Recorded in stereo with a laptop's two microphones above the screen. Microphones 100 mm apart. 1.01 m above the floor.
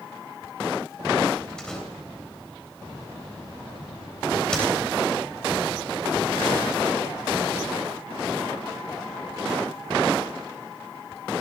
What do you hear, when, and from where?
1.6 s a door slam: 5° left (ahead or behind), 3.5 m